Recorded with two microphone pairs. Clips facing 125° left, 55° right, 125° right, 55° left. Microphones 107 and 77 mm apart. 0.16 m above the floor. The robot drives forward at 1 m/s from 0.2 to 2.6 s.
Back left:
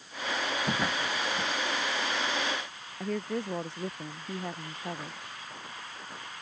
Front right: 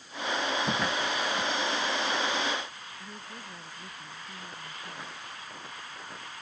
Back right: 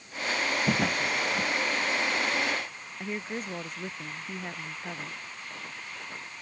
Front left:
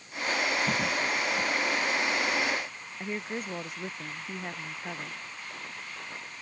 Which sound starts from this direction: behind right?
A drawer, at 0.7 s.